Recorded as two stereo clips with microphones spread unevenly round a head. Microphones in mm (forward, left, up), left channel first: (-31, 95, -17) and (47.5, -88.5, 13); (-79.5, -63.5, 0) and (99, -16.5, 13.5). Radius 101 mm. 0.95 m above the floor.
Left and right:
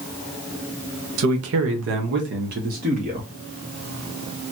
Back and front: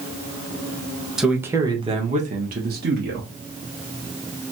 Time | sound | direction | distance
1.2 | a man speaking | 75° right | 0.9 m